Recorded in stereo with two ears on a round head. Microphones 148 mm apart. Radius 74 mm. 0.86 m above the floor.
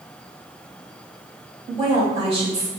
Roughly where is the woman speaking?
Right.